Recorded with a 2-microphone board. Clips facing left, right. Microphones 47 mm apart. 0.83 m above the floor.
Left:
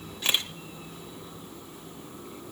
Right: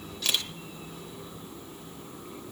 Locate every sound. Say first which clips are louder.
0.2 s a camera shutter: left 2 dB; 30° left (ahead or behind), 1.4 m